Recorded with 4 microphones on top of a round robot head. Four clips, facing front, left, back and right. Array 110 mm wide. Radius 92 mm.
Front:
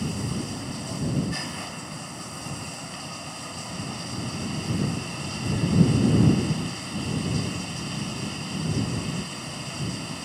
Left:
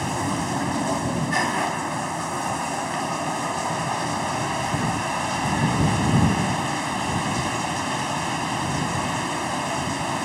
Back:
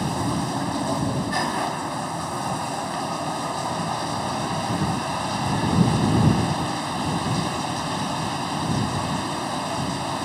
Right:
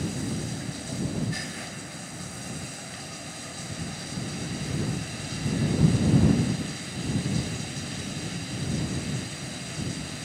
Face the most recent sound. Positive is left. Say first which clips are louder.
# left 7 dB, back 6 dB
turn(degrees=130)